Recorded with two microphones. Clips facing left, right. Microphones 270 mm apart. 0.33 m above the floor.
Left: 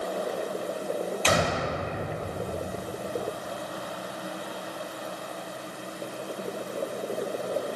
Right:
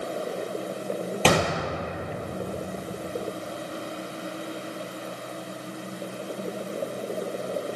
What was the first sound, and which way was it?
A gunshot, 85° right.